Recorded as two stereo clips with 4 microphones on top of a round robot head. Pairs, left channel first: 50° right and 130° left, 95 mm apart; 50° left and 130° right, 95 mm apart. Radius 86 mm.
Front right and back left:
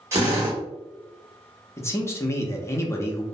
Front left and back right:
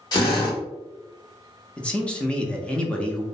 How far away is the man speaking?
About 0.7 m.